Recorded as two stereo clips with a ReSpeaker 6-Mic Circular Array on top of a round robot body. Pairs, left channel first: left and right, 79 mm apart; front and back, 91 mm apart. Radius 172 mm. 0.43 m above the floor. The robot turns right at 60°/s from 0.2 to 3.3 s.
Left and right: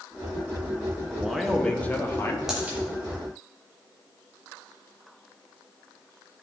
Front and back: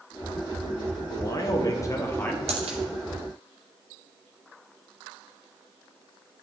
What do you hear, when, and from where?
1.1 s a man speaking: 15° right, 1.2 m; by 2.4 s 60° left, 1.2 m
2.5 s a dropped coin: 175° right, 0.6 m; by 2.8 s 155° right, 0.6 m